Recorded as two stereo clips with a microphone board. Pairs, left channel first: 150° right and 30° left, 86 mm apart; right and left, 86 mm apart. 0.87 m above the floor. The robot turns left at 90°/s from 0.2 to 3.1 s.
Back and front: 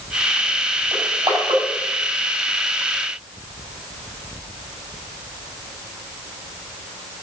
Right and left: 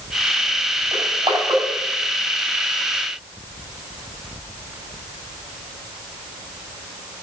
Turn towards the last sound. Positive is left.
turn(degrees=-95)